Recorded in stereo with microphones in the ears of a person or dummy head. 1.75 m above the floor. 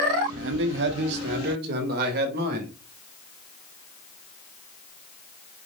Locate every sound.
0.4 s a man speaking: 70° right (ahead or behind), 1.1 m; by 2.8 s 55° right (ahead or behind), 4 m